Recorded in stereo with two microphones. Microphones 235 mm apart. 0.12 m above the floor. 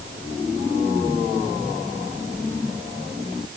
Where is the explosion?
No explosion in this recording.